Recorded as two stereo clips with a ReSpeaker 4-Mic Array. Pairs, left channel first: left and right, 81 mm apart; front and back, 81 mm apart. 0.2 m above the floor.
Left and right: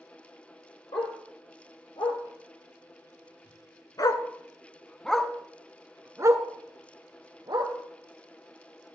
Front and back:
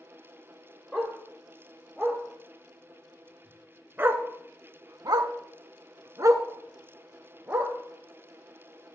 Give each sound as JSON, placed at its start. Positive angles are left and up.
{"t": 0.9, "sound": "a dog barking", "azimuth_deg": 95, "distance_m": 2.5}